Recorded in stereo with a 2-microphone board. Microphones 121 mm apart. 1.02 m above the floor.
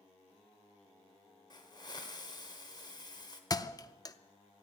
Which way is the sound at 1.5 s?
35° left (ahead or behind).